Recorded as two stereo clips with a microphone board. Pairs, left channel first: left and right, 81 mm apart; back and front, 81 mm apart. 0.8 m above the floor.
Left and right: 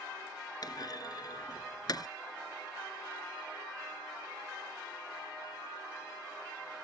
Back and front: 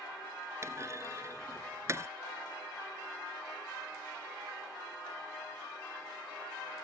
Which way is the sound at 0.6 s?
55° left.